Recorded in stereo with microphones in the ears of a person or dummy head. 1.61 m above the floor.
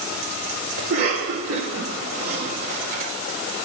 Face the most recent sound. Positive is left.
turn(degrees=-50)  # may be behind; listen again after turning